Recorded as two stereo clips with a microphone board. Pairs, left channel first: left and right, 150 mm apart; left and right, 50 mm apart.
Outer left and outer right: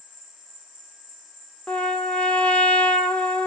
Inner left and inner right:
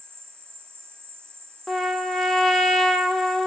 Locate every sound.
0.0 s an insect: 60° right (ahead or behind), 1.1 m
1.7 s a trumpet: 10° left (ahead or behind), 0.9 m